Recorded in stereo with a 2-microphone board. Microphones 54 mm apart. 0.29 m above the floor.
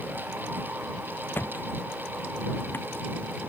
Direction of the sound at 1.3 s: 45° left (ahead or behind).